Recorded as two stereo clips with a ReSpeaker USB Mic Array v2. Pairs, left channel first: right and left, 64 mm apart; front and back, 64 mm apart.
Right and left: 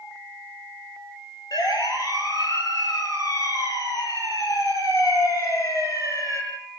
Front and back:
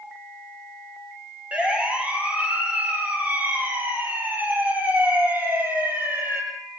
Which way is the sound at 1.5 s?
110° right.